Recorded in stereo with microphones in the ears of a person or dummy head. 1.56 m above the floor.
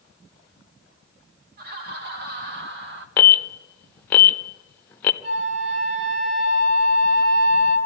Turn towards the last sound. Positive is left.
turn(degrees=-30)  # may be behind; listen again after turning